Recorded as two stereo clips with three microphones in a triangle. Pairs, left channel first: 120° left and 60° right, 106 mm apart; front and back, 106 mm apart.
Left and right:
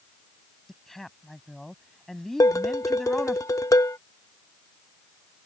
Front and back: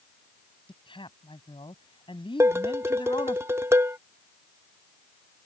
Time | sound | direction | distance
0.7 | a woman speaking | 35° left | ?
2.4 | dishes clattering | 140° left | ?